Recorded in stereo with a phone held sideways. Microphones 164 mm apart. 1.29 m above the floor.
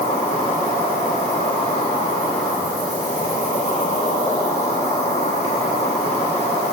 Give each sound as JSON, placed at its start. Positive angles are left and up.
{"t": 0.0, "sound": "an insect", "side_deg": 40, "distance_m": 1.1}